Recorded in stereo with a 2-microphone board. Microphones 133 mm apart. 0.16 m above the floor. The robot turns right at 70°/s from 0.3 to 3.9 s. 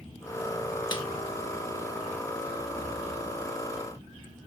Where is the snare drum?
35° left (ahead or behind), 0.8 m; by 1.0 s 25° left (ahead or behind), 0.8 m.